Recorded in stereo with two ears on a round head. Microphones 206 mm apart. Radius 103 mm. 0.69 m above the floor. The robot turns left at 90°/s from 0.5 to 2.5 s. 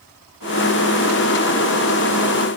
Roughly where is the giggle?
No giggle in this recording.